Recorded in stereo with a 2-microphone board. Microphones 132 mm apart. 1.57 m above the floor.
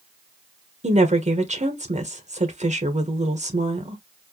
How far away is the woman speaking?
About 1.1 m.